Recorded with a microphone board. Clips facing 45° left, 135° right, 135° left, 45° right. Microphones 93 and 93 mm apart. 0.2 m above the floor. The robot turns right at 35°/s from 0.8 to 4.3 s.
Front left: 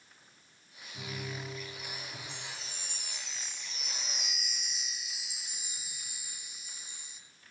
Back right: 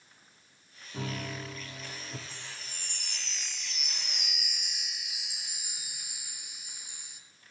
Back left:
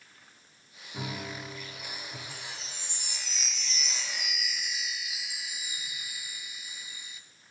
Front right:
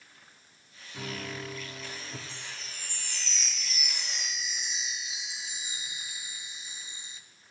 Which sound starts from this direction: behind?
A chime, at 2.3 s.